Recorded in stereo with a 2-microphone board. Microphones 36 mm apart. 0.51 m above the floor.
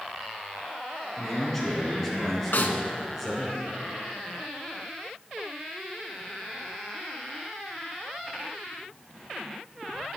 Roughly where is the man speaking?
Centre.